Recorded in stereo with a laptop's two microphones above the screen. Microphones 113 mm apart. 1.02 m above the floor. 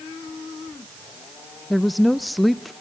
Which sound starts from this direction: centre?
A woman speaking, at 1.7 s.